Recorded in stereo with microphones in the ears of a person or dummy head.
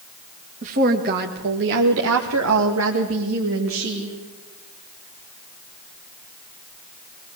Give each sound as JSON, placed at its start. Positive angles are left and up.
{"t": 0.6, "sound": "a woman speaking", "side_deg": -40, "distance_m": 2.0}